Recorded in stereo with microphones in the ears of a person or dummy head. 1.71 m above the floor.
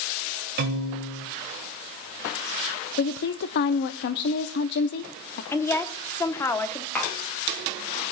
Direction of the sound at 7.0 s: 10° left (ahead or behind).